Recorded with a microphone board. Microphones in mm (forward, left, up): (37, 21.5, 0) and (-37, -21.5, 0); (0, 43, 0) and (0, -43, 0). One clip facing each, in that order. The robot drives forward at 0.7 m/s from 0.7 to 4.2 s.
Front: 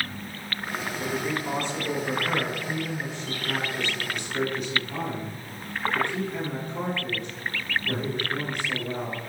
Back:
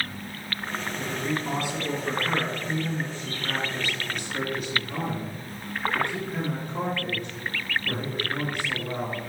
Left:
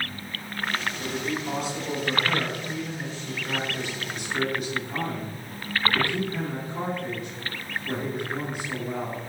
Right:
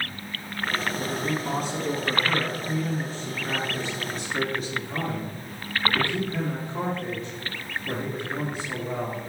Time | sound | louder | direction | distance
1.0 | a man speaking | front 1 dB, right 2 dB | 60° right | 2.5 m